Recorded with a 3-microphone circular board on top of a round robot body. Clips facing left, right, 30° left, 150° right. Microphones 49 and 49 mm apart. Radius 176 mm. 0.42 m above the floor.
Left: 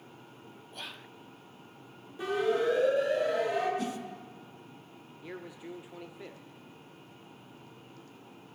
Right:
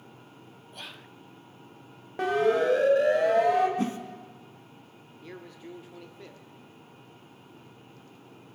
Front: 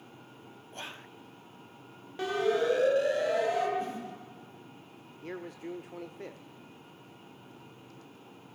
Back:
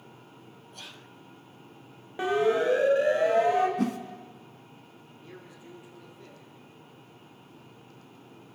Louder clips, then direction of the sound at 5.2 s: Left 1 dB, front 9 dB; 10° left.